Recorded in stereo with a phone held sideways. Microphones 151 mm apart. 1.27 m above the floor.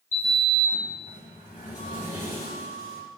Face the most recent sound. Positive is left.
turn(degrees=55)  # may be behind; listen again after turning